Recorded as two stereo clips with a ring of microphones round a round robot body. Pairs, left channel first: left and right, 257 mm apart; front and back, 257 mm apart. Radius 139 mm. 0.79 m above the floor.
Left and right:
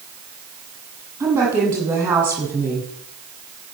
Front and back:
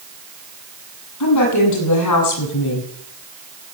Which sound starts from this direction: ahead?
A woman speaking, at 1.2 s.